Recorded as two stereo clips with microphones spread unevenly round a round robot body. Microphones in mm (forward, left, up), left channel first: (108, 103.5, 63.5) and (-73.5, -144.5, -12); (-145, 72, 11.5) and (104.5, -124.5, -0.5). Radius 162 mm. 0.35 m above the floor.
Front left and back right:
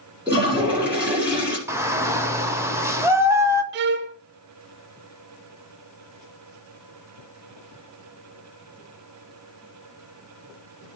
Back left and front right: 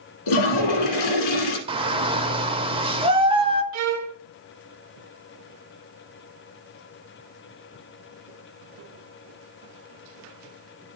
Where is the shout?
85° right, 0.9 m.